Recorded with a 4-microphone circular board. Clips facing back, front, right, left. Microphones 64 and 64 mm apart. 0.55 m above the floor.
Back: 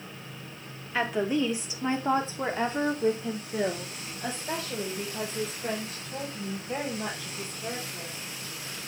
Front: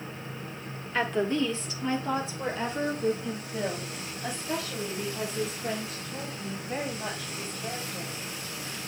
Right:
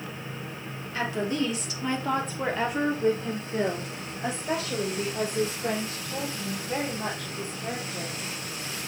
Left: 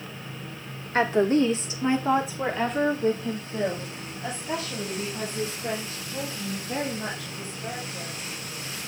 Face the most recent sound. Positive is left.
turn(degrees=-130)